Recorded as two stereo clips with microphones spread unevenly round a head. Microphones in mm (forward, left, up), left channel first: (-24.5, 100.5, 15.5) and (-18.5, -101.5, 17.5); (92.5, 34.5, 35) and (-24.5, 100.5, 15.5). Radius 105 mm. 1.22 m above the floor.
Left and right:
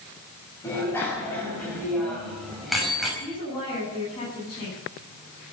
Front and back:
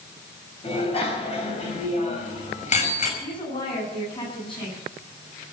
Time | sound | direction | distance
0.6 | a bicycle bell | 15° left | 5 m
3.2 | a woman speaking | 20° left | 10 m